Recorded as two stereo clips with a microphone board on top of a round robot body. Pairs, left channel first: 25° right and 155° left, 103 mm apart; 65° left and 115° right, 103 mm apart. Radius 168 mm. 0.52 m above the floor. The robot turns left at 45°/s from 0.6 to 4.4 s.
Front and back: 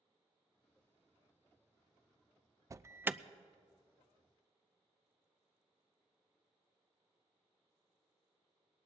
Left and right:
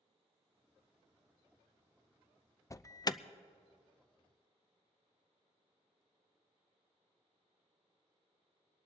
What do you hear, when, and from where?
2.7 s an alarm: 115° left, 0.5 m; by 3.2 s 90° left, 0.5 m